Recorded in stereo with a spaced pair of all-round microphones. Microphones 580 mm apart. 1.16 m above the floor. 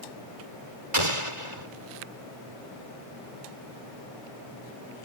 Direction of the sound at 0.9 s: 55° right (ahead or behind).